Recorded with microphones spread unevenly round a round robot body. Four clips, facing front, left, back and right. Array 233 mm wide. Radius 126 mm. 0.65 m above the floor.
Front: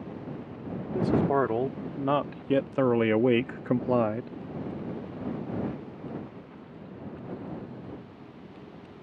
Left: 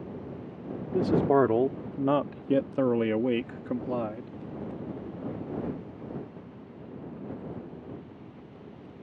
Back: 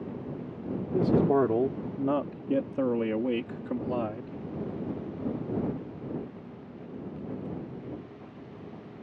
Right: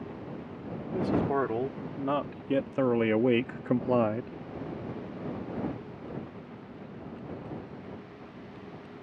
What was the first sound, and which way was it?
A man speaking, 130° left.